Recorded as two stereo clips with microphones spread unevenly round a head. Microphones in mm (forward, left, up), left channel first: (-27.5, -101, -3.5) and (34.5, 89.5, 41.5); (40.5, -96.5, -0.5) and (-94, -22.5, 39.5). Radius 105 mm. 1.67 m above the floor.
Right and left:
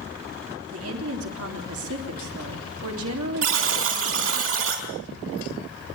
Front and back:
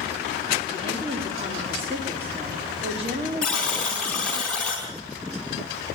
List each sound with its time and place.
0.7 s a woman speaking: 90° left, 3.5 m
3.4 s a buzzer: 60° left, 4.5 m